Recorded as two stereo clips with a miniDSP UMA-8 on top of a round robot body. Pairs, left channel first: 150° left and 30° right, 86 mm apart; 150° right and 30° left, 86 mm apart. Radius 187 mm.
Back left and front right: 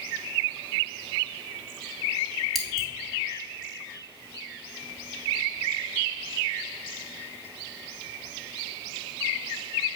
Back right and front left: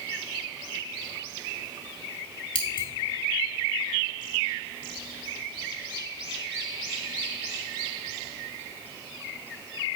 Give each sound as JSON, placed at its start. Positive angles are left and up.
{"t": 2.5, "sound": "scissors", "azimuth_deg": -120, "distance_m": 0.8}